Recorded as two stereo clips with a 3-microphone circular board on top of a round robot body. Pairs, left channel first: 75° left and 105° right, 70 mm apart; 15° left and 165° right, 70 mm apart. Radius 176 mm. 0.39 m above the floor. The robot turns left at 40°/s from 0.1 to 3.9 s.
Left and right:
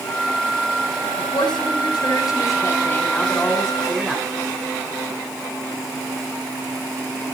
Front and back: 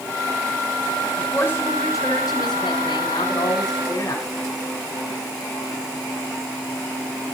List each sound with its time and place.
1.2 s a woman speaking: 85° left, 4.5 m; by 4.2 s 20° right, 4.5 m